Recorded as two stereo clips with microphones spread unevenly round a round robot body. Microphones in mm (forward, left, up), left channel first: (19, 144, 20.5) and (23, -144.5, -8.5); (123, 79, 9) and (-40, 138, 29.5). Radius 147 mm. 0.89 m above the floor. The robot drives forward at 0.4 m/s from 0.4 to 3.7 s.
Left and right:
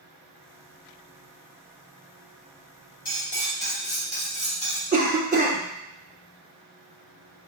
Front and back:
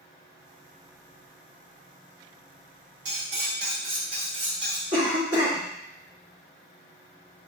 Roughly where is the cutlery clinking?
Behind left.